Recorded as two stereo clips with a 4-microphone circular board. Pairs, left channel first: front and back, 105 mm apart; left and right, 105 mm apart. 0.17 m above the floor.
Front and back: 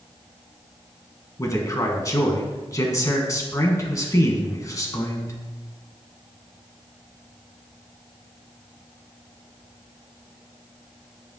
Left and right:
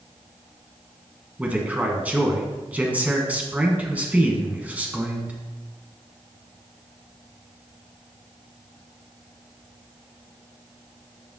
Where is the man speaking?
25° right, 1.3 m.